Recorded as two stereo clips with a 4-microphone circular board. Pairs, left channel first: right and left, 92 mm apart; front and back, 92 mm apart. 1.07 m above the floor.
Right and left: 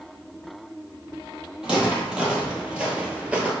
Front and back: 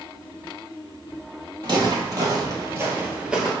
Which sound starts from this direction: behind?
Footsteps, at 1.6 s.